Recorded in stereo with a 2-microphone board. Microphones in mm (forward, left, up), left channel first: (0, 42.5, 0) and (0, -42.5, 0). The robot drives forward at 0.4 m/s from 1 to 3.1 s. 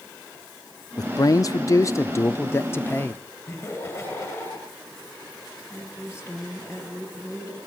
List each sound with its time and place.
1.0 s a man speaking: 50° left (ahead or behind), 0.7 m; by 3.2 s 25° left (ahead or behind), 1.1 m
3.5 s laughter: 35° left (ahead or behind), 9.5 m
5.7 s a woman speaking: 30° left (ahead or behind), 8.5 m